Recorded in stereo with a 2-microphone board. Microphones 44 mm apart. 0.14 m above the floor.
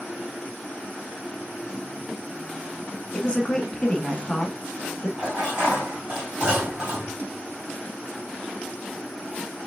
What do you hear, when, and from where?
3.1 s a woman speaking: 20° left (ahead or behind), 1.1 m
5.2 s dishes clattering: 25° right (ahead or behind), 3.5 m